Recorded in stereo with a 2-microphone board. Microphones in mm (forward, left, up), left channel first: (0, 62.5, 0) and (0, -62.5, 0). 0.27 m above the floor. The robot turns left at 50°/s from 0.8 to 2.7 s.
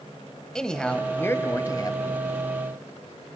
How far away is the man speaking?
About 1.3 m.